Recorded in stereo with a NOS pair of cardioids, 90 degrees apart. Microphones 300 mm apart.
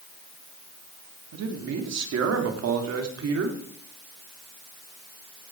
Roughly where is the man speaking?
Ahead right.